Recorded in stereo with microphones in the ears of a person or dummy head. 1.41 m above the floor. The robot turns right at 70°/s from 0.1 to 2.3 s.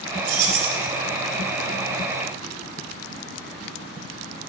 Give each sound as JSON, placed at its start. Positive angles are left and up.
{"t": 0.2, "sound": "keys jangling", "azimuth_deg": -130, "distance_m": 4.0}